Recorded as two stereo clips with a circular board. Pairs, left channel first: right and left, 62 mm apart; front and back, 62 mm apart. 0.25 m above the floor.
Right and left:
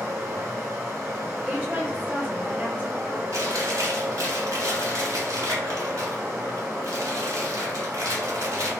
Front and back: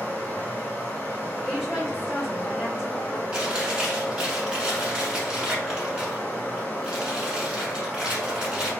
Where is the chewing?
105° left, 1.1 m.